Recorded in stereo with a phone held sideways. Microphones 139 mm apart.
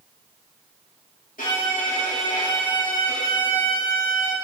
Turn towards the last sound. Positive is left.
turn(degrees=75)  # may be behind; listen again after turning